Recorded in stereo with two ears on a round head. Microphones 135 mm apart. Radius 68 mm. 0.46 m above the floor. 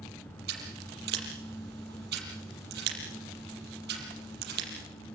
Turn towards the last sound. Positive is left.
turn(degrees=-70)  # may be behind; listen again after turning